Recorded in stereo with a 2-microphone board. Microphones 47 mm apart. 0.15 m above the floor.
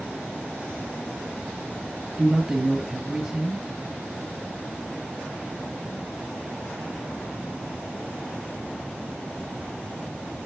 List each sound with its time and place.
2.2 s a man speaking: 10° right (ahead or behind), 2.5 m